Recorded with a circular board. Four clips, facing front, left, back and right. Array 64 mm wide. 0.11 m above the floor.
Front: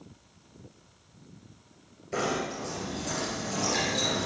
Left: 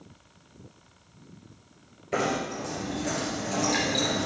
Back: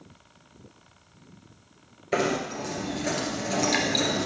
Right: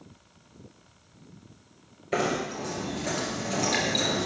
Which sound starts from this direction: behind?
Knocking, at 2.1 s.